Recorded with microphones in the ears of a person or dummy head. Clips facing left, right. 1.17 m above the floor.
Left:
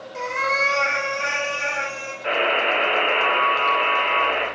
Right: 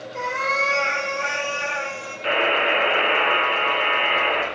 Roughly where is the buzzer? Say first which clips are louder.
Even; right.